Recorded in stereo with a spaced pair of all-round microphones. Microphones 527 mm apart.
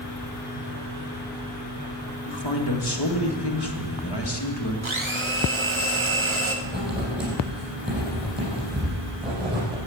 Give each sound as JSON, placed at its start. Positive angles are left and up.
{"t": 2.2, "sound": "a man speaking", "side_deg": 50, "distance_m": 2.0}
{"t": 4.8, "sound": "a blender", "side_deg": -60, "distance_m": 1.5}
{"t": 6.7, "sound": "writing", "side_deg": -20, "distance_m": 7.0}